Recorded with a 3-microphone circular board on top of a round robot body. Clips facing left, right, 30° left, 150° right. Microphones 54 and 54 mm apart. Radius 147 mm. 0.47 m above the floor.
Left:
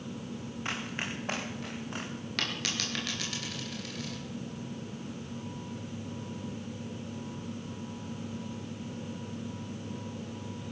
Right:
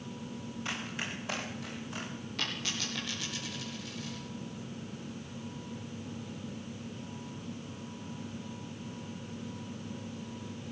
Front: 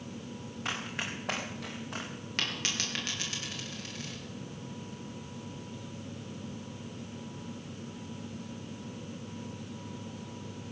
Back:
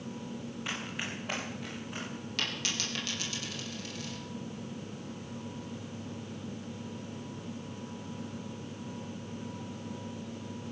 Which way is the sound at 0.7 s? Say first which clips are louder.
Left 2 dB, front 3 dB; 35° left.